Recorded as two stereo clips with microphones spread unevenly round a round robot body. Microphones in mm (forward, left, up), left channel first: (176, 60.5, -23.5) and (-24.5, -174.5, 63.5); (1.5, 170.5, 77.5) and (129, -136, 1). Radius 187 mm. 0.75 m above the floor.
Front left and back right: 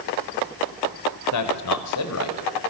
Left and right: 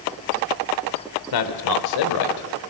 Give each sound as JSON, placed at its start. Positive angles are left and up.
{"t": 1.3, "sound": "a man speaking", "azimuth_deg": 85, "distance_m": 2.5}